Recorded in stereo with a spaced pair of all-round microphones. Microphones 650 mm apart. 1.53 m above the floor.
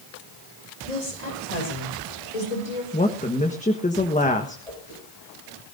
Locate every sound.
0.8 s a woman speaking: 85° left, 5 m; by 2.8 s 75° left (ahead or behind), 6 m
2.9 s a woman speaking: 10° left (ahead or behind), 1.2 m
4.7 s a whoosh: 75° left (ahead or behind), 6.5 m